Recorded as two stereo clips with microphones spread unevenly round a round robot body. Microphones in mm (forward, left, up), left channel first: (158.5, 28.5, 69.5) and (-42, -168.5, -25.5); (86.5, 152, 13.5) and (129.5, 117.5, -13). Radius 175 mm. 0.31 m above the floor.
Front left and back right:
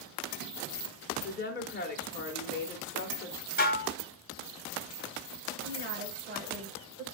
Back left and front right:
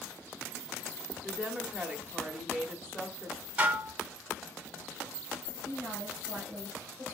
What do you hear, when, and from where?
1.2 s a woman speaking: 5° right, 1.4 m
3.6 s dishes clattering: 20° right, 1.1 m
5.6 s a woman speaking: 95° right, 4.5 m